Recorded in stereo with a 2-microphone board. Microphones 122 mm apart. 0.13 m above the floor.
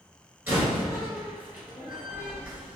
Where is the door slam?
15° right (ahead or behind), 1.7 m.